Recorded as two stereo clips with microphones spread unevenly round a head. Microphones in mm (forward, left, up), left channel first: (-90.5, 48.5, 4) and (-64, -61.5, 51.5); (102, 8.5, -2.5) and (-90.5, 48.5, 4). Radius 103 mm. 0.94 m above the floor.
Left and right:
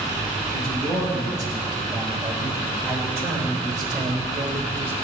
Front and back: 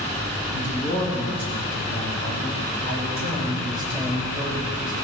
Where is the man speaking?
175° right, 5.5 m; by 4.9 s 120° right, 3.5 m.